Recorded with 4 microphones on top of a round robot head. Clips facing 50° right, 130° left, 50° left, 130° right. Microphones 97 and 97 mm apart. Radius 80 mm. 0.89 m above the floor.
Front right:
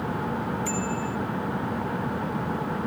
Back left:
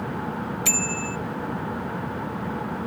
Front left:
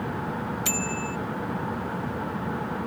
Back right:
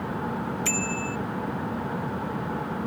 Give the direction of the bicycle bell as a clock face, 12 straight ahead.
8 o'clock.